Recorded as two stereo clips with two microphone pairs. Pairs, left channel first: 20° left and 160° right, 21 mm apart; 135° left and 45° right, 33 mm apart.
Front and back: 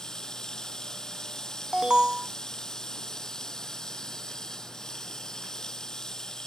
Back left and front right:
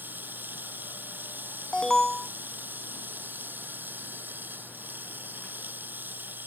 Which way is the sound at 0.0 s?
40° right.